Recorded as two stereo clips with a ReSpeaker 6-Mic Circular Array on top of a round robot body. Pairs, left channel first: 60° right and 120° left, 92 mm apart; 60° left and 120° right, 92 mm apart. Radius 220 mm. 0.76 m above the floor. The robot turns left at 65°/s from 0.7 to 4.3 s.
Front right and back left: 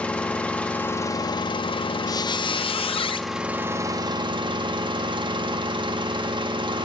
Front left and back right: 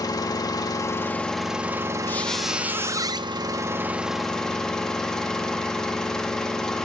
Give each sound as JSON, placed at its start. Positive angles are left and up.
{"t": 0.0, "sound": "an engine running", "azimuth_deg": 15, "distance_m": 1.3}
{"t": 2.1, "sound": "a squeak", "azimuth_deg": -10, "distance_m": 0.6}